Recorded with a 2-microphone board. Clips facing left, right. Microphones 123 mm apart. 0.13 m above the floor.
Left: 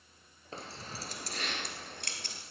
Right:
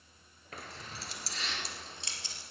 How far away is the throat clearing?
I don't hear throat clearing.